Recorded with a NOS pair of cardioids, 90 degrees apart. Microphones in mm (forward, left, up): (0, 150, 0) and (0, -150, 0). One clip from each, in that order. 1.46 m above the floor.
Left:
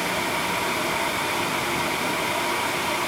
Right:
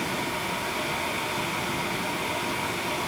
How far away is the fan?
About 0.8 m.